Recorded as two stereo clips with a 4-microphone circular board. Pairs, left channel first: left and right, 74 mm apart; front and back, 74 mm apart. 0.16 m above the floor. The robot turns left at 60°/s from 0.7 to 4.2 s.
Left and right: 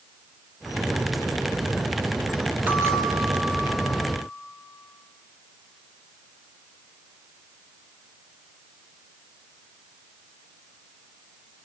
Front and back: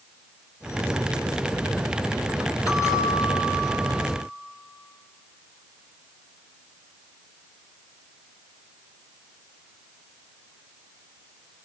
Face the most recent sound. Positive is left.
turn(degrees=-120)